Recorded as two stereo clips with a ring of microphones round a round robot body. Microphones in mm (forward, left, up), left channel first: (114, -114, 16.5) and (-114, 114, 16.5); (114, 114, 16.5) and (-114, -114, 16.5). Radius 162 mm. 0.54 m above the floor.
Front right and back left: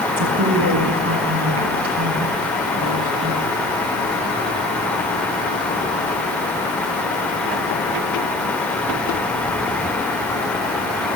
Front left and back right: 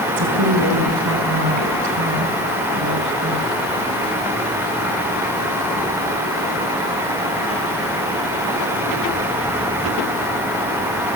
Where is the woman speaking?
175° right, 5 m.